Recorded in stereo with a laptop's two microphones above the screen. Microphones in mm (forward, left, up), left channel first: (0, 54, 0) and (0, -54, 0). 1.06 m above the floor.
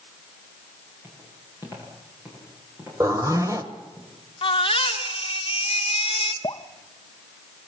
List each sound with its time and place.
1.0 s footsteps: 25° right (ahead or behind), 9.5 m; by 4.0 s 15° right (ahead or behind), 11.5 m
3.0 s a zipper: 30° right (ahead or behind), 1.4 m
4.4 s a baby crying: 55° left (ahead or behind), 1.8 m
6.4 s dripping: 45° left (ahead or behind), 0.6 m